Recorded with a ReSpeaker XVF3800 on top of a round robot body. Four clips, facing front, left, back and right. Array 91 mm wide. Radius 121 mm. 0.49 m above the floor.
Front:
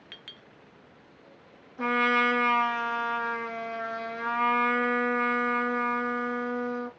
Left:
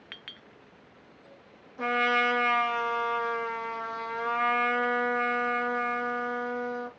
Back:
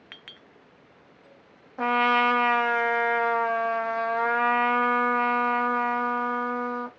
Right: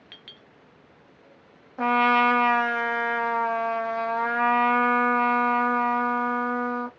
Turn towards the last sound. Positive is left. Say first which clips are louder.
# right 6 dB, back 3 dB
turn(degrees=-135)